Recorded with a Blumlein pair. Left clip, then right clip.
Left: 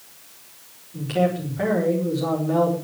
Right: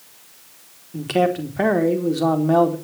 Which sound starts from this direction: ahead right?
A man speaking, at 0.9 s.